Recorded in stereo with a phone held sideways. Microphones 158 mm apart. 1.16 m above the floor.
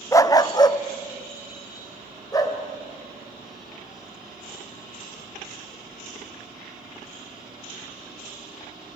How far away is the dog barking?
About 0.6 m.